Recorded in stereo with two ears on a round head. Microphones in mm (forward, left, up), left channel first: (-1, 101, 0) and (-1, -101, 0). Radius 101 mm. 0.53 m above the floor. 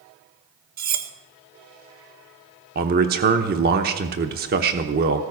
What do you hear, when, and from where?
0.8 s cutlery clinking: 40° right (ahead or behind), 1.0 m
2.8 s a man speaking: 45° right (ahead or behind), 0.9 m